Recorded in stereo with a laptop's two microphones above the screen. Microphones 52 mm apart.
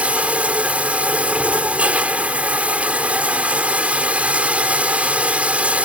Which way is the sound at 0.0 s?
25° right (ahead or behind).